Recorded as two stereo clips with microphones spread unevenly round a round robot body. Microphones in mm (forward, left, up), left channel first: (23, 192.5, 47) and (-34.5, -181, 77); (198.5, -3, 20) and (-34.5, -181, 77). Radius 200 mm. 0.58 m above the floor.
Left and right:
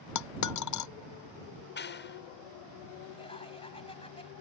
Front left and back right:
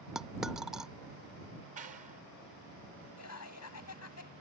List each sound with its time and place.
0.1 s a dropped coin: 130° left
1.8 s a clap: 145° left
3.2 s laughter: 5° left